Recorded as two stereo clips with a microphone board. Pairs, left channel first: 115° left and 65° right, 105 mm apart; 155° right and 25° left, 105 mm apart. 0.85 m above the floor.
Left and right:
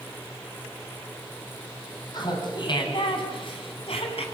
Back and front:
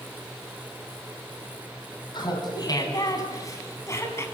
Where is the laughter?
160° left, 6 m; by 4.2 s 135° left, 6.5 m.